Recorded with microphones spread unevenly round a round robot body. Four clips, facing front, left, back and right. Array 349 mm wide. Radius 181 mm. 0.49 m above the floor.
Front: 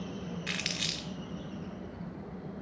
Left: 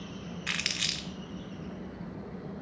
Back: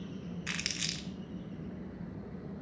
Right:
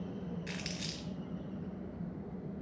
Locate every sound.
0.5 s crumpling: 90° left, 0.6 m